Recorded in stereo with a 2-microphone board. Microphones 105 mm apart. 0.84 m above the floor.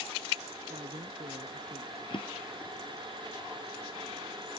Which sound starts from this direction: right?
A woman speaking, at 0.6 s.